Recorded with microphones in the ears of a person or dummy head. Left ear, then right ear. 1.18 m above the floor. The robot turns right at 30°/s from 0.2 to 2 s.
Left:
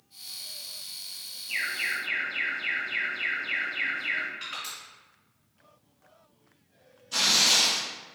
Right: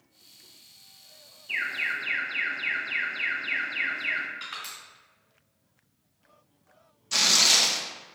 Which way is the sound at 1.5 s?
55° right (ahead or behind).